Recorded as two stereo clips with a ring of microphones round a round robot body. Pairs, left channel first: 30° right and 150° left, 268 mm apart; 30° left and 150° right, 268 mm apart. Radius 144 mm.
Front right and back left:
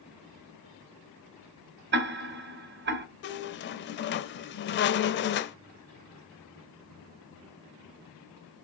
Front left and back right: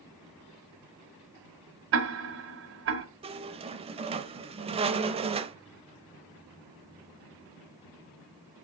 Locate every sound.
1.9 s ticking: 170° right, 1.4 m
3.2 s a squeak: 80° right, 0.6 m